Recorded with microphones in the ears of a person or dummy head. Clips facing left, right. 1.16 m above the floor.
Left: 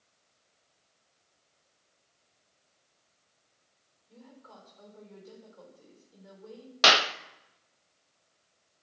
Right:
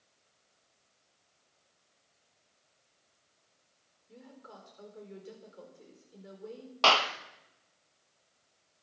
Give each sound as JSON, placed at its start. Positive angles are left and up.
{"t": 4.1, "sound": "a woman speaking", "side_deg": -35, "distance_m": 4.0}
{"t": 6.8, "sound": "a clap", "side_deg": 25, "distance_m": 0.6}